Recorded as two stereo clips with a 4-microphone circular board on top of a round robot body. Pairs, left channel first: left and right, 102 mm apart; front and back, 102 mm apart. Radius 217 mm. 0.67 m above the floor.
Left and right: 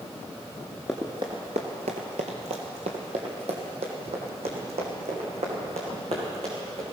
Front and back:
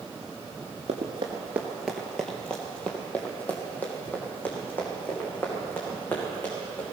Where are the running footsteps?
Straight behind, 0.7 m; by 6.8 s 70° right, 5.5 m.